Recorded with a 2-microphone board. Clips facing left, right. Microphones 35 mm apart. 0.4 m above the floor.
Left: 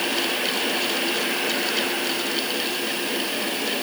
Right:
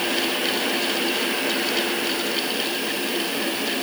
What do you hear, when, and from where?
Only background noise.